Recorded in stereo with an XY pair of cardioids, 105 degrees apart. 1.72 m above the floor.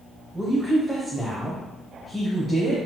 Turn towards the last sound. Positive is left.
turn(degrees=0)